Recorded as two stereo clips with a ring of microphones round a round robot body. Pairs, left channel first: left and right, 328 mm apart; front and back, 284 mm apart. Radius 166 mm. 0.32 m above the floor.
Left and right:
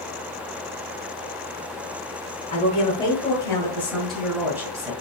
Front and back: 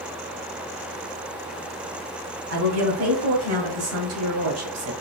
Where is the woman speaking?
160° left, 2.5 m; by 4.9 s 165° right, 2 m.